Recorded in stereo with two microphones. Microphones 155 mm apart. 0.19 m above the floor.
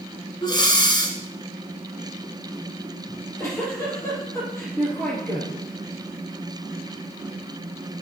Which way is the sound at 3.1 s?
15° left (ahead or behind).